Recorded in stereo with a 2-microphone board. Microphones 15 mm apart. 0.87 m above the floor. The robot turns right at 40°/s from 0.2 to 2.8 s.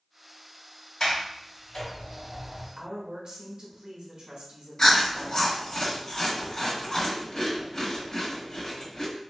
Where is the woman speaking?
55° right (ahead or behind), 1.0 m.